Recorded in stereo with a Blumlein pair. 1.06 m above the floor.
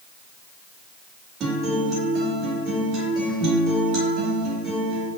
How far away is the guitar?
About 2.5 m.